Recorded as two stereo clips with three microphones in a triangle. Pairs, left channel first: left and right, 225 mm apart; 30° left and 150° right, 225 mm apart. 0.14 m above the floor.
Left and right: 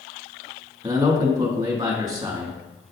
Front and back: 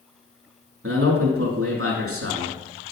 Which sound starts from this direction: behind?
A man speaking, at 0.8 s.